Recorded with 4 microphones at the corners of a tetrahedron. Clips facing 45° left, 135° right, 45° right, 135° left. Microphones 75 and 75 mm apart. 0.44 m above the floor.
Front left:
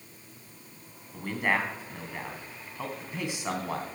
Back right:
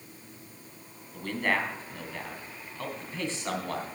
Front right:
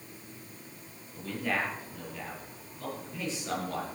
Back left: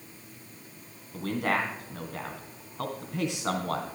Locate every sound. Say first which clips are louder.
1.1 s a man speaking: front left 1 dB, back left 4 dB; 125° left, 3 m